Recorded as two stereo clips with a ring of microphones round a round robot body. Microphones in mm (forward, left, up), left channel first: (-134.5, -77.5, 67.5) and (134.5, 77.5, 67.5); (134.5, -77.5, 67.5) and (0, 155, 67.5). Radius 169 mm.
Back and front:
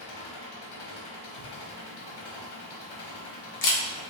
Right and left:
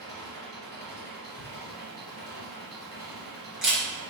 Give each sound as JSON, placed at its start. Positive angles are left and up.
{"t": 0.0, "sound": "an engine running", "azimuth_deg": -140, "distance_m": 1.0}
{"t": 1.4, "sound": "a camera shutter", "azimuth_deg": -155, "distance_m": 1.3}